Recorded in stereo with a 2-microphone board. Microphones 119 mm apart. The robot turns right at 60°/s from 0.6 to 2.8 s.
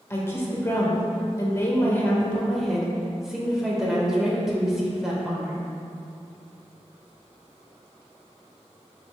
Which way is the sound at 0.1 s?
20° left (ahead or behind).